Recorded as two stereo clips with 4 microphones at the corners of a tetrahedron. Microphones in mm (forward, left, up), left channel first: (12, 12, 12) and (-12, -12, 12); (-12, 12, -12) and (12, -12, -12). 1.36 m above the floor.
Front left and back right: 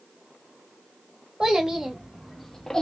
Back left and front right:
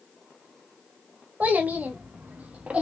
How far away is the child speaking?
About 1.2 m.